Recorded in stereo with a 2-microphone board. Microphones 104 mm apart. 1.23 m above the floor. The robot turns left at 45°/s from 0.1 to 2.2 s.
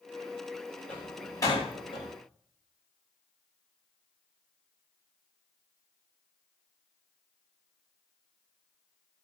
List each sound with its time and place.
0.9 s a door slam: 10° left (ahead or behind), 7 m; by 2.1 s 65° left (ahead or behind), 7 m